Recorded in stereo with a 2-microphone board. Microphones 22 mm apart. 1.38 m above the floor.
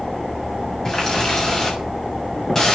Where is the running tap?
20° left (ahead or behind), 7 m.